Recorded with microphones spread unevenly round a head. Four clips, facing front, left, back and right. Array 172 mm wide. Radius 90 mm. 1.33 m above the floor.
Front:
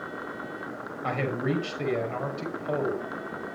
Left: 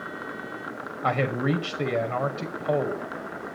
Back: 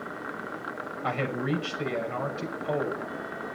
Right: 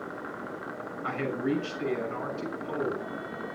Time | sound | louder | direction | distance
1.0 | a man speaking | left 5 dB, front 1 dB | 85° left | 6 m